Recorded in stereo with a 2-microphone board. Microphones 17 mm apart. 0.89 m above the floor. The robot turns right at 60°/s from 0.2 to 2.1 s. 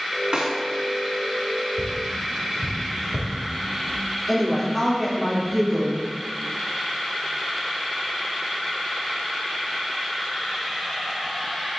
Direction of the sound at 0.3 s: 50° right (ahead or behind).